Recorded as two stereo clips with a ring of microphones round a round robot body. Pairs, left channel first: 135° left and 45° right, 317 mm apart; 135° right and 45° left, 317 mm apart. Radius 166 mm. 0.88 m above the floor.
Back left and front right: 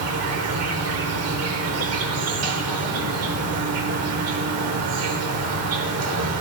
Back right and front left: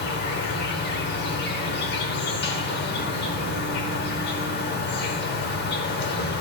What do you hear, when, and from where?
0.0 s an insect: 80° right, 0.8 m